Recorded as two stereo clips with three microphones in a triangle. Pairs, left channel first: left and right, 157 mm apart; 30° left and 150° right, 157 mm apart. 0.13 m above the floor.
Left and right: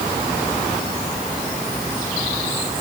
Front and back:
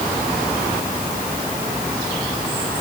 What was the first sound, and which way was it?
Only background noise.